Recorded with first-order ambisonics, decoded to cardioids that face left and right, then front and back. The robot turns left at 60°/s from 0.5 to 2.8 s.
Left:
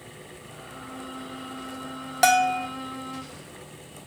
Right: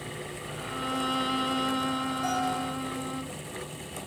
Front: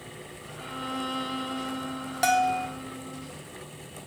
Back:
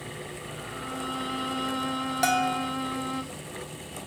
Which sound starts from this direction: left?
A bell, at 2.2 s.